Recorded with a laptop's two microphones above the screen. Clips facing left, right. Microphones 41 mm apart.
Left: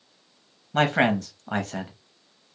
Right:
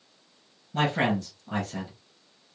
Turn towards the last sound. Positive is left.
turn(degrees=60)  # may be behind; listen again after turning